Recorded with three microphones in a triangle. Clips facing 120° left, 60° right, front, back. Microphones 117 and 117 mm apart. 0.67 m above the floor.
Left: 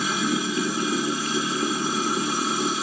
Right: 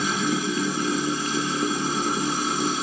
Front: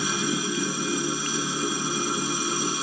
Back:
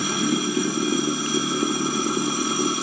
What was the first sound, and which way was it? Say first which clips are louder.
Running water: even, back 4 dB; 150° right.